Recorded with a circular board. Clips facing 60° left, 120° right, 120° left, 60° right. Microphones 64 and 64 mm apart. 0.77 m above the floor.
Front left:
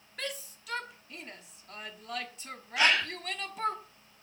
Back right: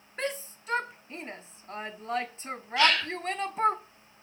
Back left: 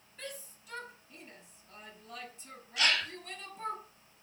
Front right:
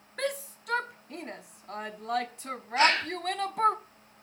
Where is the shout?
65° right, 1.3 m.